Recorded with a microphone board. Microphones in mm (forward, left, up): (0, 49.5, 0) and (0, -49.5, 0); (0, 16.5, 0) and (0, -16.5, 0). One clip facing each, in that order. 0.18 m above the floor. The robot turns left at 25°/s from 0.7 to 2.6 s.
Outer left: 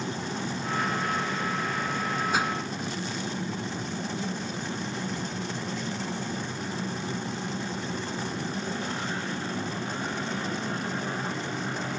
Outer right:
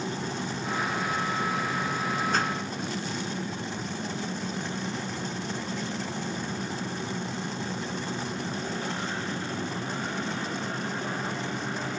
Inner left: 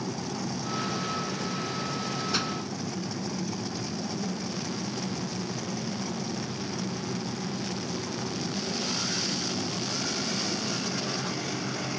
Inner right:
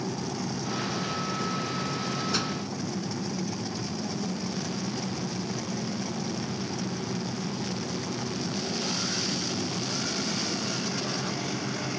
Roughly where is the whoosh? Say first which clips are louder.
Outer left 2 dB, inner left 2 dB; centre.